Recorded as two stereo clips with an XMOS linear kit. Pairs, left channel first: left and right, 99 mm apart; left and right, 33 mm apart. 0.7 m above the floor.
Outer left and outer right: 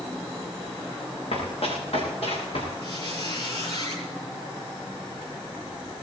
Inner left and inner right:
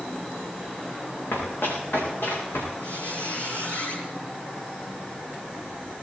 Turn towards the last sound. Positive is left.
turn(degrees=50)  # may be behind; listen again after turning